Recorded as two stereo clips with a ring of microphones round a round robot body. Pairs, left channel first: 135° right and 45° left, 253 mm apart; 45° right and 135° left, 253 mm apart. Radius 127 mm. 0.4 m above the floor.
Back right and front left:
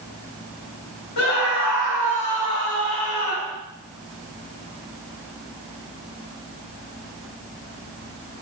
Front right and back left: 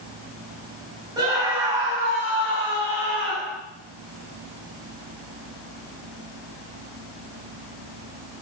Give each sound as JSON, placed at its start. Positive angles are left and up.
{"t": 1.2, "sound": "a scream", "azimuth_deg": -150, "distance_m": 2.5}